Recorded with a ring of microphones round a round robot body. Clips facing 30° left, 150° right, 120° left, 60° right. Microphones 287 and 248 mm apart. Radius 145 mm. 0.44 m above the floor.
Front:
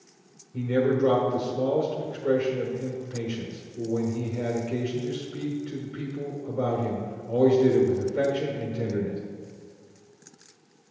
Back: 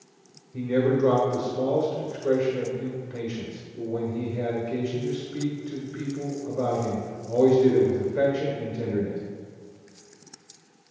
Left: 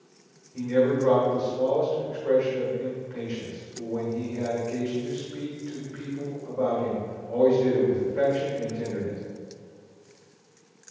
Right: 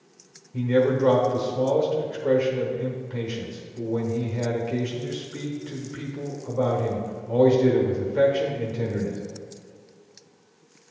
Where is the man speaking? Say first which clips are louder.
Back 1 dB, right 1 dB; 50° right, 1.2 m.